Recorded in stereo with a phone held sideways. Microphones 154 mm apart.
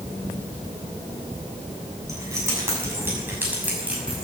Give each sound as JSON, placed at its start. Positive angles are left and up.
{"t": 2.1, "sound": "keys jangling", "side_deg": -20, "distance_m": 7.5}